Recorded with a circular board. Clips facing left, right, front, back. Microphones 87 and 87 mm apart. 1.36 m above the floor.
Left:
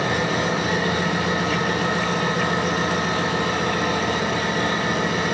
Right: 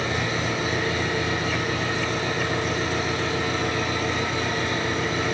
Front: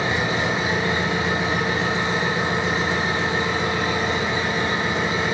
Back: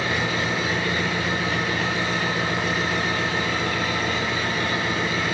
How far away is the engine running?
About 9.5 m.